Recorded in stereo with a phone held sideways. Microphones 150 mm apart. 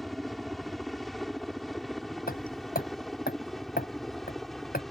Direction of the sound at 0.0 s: Centre (ahead or behind).